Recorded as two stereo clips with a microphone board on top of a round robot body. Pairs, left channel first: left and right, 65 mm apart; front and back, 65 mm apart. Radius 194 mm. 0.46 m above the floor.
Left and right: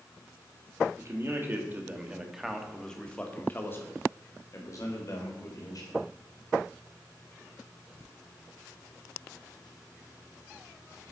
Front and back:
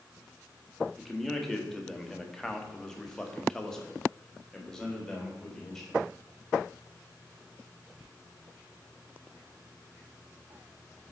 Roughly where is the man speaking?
Right.